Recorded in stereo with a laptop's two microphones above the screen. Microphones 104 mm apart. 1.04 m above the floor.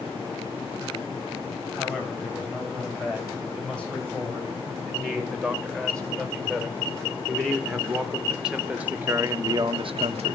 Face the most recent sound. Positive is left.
turn(degrees=-75)  # may be behind; listen again after turning